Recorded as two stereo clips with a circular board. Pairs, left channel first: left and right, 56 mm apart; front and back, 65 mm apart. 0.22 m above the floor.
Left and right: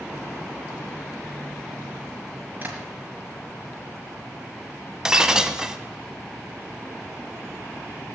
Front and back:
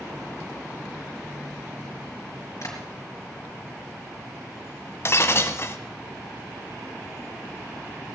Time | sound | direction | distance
2.6 | tapping | 30° right | 4 m
5.0 | breaking glass | 15° right | 1.0 m